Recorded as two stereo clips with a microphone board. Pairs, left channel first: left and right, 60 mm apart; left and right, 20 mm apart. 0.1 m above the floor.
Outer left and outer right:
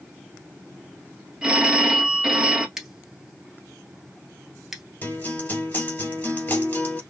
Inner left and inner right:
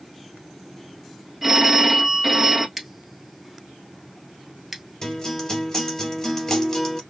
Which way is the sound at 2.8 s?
10° right (ahead or behind).